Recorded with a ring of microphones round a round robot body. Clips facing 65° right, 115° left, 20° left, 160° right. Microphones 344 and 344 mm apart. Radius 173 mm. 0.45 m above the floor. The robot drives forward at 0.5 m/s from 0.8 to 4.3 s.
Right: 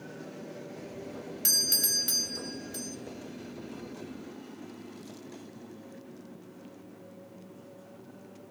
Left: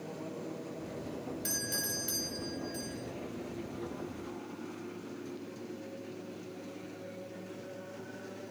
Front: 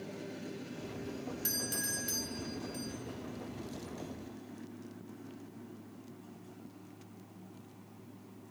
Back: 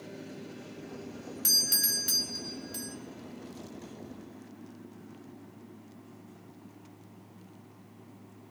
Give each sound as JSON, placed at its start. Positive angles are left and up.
{"t": 1.4, "sound": "a doorbell", "azimuth_deg": -105, "distance_m": 2.5}